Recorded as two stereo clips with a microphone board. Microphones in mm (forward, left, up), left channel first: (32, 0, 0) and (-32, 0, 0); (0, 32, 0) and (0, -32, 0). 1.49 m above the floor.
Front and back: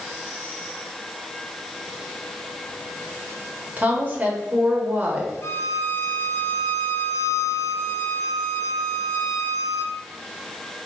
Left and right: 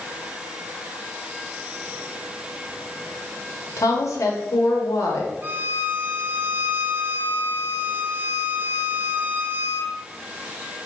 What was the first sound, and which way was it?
A woman speaking, 115° left.